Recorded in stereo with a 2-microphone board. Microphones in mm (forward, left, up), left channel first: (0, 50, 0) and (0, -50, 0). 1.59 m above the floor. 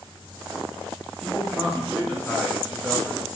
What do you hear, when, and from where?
1.2 s a man speaking: 10° left (ahead or behind), 3 m